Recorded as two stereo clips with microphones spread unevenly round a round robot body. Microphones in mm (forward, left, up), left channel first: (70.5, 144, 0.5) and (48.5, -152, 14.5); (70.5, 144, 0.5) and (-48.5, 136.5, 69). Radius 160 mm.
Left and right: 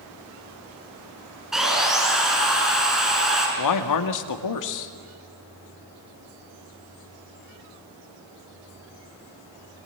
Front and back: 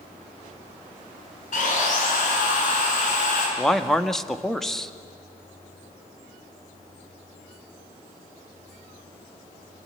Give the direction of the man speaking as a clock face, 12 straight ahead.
9 o'clock.